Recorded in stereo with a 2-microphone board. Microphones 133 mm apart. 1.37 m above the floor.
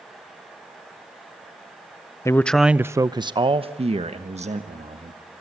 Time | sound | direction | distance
2.2 | a man speaking | 25° left (ahead or behind) | 0.6 m